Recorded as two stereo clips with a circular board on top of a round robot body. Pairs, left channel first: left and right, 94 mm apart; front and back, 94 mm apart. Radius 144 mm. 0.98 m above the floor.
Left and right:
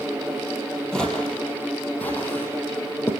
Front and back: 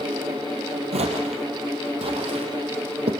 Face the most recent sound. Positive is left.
turn(degrees=155)